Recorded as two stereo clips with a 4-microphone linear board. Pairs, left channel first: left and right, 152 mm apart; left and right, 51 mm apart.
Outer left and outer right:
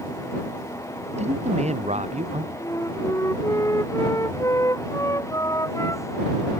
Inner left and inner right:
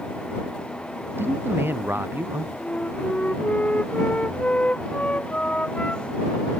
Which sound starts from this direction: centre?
A flute, at 2.6 s.